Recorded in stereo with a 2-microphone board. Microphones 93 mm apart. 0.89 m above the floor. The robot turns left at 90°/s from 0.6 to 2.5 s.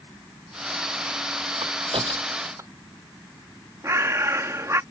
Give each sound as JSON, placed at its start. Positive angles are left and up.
{"t": 1.6, "sound": "a crack", "side_deg": -70}
{"t": 3.8, "sound": "a bird", "side_deg": -35}